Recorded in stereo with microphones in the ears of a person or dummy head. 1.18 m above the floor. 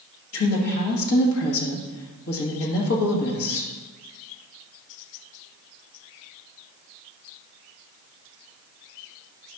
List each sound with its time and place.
0.3 s a woman speaking: 70° left (ahead or behind), 1.7 m